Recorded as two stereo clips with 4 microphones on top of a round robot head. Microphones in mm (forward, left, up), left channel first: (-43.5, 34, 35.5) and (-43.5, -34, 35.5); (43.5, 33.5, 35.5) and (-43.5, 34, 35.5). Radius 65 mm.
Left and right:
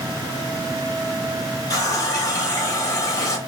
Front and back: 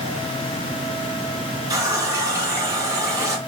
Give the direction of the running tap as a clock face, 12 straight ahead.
8 o'clock.